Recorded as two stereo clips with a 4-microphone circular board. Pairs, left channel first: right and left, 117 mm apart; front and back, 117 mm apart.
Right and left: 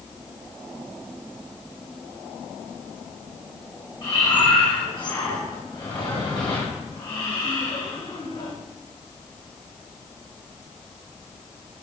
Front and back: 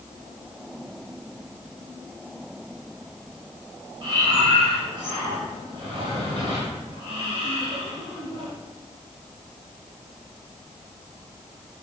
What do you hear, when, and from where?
4.0 s breathing: 135° right, 2 m